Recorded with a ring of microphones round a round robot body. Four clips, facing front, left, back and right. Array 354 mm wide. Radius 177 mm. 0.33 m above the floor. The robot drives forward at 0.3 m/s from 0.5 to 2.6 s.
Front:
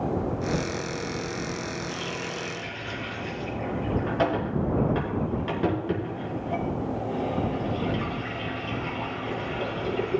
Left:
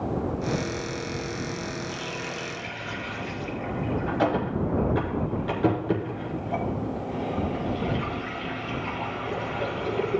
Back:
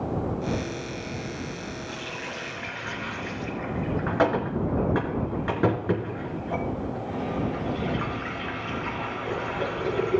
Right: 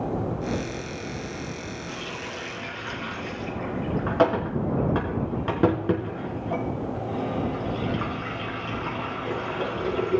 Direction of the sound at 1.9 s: 100° right.